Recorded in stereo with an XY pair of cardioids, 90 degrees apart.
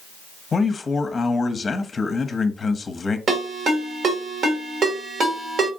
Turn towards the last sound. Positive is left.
turn(degrees=-65)